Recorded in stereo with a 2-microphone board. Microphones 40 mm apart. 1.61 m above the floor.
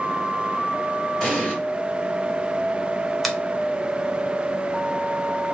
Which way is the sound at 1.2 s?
20° left (ahead or behind).